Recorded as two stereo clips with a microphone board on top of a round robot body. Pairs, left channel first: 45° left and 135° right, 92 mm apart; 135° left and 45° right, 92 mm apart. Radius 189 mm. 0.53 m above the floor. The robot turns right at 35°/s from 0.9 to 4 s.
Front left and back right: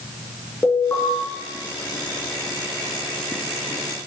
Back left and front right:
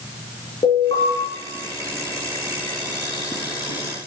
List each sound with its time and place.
0.6 s an alarm: 110° left, 5.5 m; by 1.1 s 115° left, 5.5 m